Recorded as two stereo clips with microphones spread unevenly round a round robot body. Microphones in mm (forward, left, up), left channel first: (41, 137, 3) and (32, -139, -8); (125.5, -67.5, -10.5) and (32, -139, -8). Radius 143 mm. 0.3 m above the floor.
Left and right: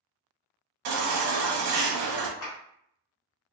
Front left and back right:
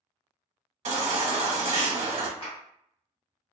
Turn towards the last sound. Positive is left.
turn(degrees=70)